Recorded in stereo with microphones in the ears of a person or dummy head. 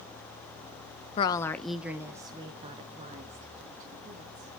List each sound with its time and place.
1.2 s a woman speaking: 25° left (ahead or behind), 0.6 m; by 4.6 s 50° right (ahead or behind), 2.5 m